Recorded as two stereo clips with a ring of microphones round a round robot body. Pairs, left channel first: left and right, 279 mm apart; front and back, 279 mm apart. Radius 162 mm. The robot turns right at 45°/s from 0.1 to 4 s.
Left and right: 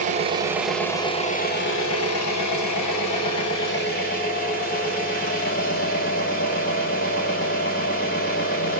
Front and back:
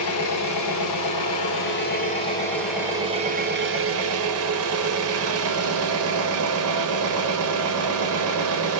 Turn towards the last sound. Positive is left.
turn(degrees=150)